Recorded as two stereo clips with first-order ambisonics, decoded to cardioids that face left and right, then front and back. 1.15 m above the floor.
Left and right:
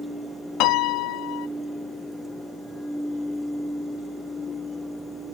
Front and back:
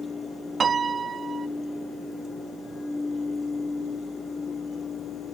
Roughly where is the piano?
Left.